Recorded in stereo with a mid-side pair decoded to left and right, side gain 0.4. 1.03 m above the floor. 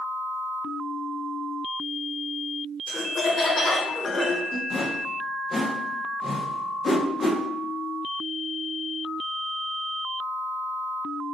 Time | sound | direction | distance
2.9 | laughter | 45° left | 1.0 m
4.7 | a whoosh | 45° left | 1.4 m